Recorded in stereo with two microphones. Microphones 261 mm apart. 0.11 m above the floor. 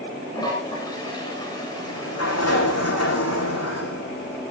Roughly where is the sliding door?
Left.